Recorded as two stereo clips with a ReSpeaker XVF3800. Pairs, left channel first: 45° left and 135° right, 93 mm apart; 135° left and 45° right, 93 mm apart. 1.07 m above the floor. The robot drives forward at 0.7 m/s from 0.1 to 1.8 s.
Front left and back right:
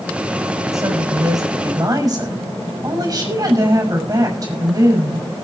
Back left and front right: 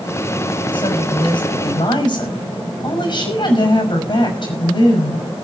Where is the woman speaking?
170° left, 5 m.